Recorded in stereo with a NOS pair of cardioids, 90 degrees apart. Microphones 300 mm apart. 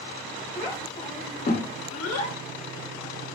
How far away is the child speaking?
About 1.7 m.